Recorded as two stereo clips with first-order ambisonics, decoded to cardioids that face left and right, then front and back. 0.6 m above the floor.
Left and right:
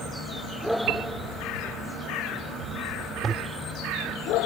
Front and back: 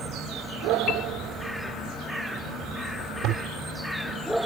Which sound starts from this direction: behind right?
A toilet flushing, at 3.2 s.